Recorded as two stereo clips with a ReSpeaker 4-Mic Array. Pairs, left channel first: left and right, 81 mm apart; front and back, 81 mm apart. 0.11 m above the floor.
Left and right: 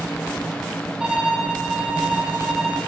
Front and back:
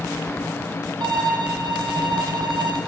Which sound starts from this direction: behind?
A violin, at 1.0 s.